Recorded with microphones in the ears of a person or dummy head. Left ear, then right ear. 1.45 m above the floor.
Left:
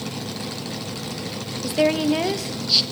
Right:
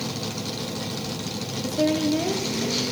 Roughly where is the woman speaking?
Left.